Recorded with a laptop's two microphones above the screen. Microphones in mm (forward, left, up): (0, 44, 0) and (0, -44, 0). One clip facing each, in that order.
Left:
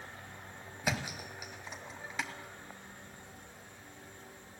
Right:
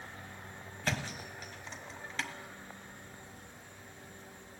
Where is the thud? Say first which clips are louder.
Left 1 dB; 10° left (ahead or behind), 1.3 m.